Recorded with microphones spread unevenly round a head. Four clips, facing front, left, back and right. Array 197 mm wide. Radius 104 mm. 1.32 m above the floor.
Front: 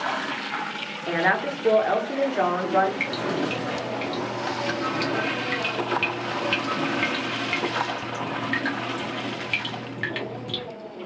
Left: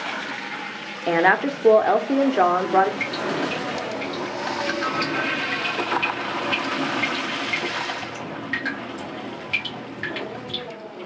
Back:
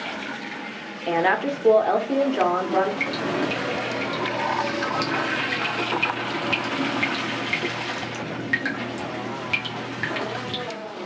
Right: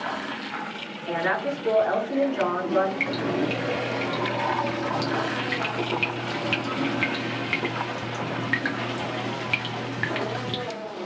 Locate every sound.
1.1 s a woman speaking: 100° left, 0.8 m
3.0 s dripping: 90° right, 0.6 m